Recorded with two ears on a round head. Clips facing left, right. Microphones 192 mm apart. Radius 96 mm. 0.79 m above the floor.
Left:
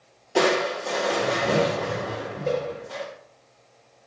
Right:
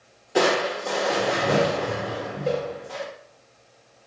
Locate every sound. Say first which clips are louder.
0.3 s crushing: even; 5° right (ahead or behind), 1.6 m